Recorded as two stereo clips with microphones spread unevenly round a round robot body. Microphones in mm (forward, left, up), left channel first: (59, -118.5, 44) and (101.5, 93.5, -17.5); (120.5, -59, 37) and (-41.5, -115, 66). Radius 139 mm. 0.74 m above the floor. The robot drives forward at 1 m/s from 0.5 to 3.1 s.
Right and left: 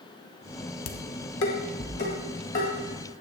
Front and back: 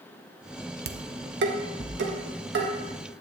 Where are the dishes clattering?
130° right, 0.8 m; by 2.7 s 165° right, 2.5 m.